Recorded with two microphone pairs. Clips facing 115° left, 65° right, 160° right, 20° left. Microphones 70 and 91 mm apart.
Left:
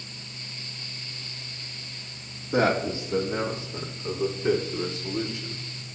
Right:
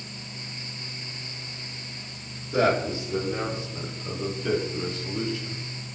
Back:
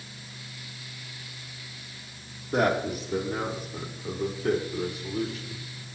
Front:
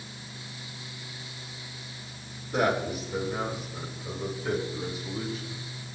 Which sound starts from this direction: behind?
A man speaking, at 2.5 s.